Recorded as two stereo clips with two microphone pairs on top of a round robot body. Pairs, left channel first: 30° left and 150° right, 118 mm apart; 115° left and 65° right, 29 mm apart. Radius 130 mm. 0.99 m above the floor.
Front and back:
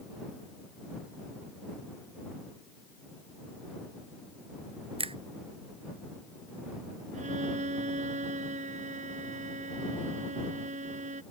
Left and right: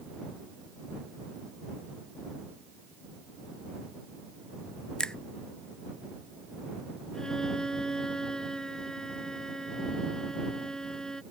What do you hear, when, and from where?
5.0 s a finger snap: straight behind
7.1 s a violin: 170° right